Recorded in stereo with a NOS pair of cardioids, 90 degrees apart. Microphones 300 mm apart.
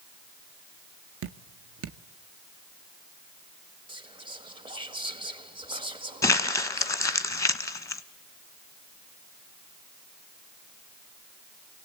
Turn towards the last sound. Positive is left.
turn(degrees=10)